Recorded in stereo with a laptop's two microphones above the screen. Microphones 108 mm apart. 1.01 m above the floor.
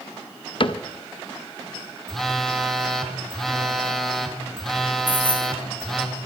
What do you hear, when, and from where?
0.6 s a cupboard door: 50° left (ahead or behind), 0.5 m
2.1 s a phone buzzing: 5° left (ahead or behind), 1.6 m
5.1 s keys jangling: 15° left (ahead or behind), 3.5 m